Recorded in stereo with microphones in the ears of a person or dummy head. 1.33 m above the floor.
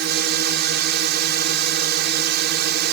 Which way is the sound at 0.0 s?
60° right (ahead or behind).